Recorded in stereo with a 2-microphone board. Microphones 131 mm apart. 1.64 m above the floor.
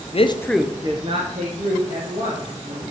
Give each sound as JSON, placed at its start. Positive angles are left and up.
{"t": 0.1, "sound": "a man speaking", "side_deg": 50, "distance_m": 0.7}